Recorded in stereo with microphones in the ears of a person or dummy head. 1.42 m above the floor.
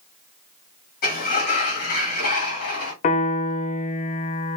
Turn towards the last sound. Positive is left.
turn(degrees=40)  # may be behind; listen again after turning